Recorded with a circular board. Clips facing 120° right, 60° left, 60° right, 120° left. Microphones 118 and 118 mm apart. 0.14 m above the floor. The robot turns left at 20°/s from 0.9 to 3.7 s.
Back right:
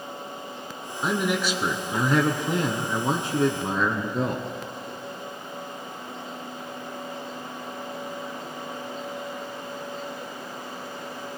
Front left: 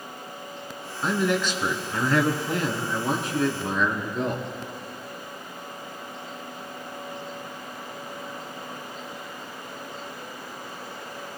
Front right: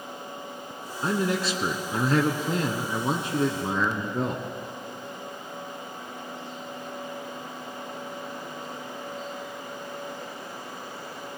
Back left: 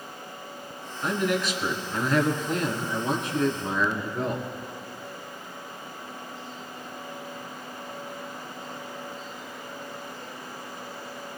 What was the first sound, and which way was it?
A man speaking, 40° right.